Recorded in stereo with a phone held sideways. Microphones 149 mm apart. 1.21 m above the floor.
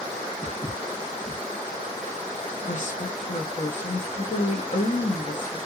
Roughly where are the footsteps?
Left.